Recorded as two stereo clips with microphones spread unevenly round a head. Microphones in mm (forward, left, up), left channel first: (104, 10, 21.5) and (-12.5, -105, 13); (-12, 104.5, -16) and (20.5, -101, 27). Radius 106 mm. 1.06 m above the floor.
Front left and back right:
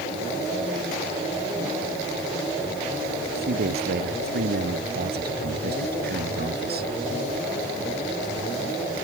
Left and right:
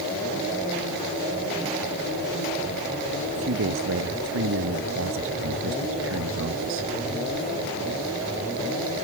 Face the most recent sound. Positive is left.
turn(degrees=-110)